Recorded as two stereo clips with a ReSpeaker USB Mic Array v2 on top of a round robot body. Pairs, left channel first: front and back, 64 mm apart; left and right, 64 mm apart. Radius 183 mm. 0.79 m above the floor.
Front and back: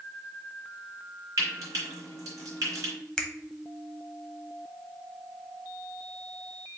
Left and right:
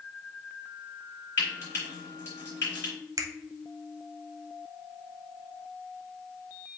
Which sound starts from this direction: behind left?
Frying, at 1.4 s.